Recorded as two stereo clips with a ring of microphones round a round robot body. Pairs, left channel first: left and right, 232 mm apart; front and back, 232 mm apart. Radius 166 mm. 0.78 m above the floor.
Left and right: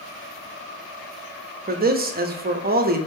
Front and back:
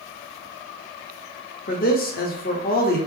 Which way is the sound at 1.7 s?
50° right.